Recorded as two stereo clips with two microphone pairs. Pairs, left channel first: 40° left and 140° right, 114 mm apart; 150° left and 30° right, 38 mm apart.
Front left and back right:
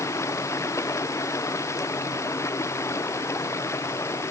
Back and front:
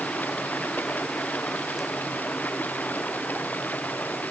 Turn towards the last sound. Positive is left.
turn(degrees=105)